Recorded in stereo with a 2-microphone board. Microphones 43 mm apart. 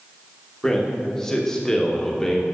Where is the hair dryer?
I don't hear a hair dryer.